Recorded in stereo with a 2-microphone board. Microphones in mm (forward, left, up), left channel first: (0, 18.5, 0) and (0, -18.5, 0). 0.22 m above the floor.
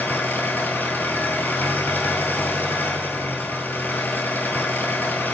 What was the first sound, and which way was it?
An engine running, 65° left (ahead or behind).